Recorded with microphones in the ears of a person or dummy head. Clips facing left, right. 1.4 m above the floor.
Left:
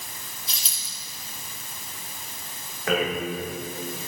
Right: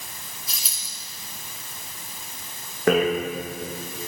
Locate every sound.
0.5 s a dropped coin: 5° right (ahead or behind), 1.7 m
2.9 s a rattle: 45° right (ahead or behind), 1.1 m